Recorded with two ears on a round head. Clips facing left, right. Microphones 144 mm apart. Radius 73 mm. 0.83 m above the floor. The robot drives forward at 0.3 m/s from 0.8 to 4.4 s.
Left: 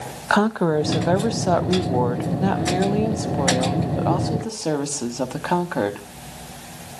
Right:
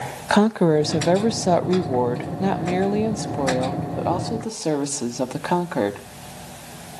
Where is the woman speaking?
15° right (ahead or behind), 0.5 m; by 6.1 s 5° right (ahead or behind), 1.3 m.